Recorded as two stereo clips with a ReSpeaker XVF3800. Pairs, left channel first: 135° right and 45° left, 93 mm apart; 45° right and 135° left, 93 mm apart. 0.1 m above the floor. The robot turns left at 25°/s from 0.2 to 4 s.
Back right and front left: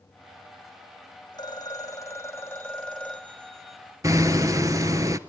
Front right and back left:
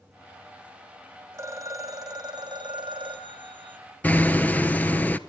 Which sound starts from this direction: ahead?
Hammering, at 4.0 s.